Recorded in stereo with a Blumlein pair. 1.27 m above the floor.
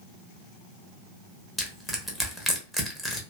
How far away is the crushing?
About 0.8 m.